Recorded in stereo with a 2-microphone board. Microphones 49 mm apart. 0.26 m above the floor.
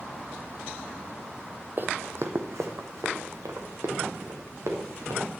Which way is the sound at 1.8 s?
45° right (ahead or behind).